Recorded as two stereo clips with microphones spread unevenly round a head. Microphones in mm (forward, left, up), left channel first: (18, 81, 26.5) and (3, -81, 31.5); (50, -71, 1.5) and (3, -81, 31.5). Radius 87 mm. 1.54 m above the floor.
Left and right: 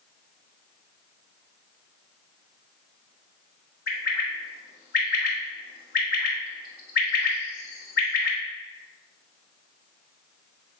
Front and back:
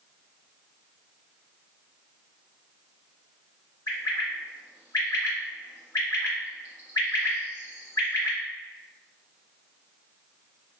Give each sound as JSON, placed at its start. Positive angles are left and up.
{"t": 3.9, "sound": "a bird", "azimuth_deg": 50, "distance_m": 0.7}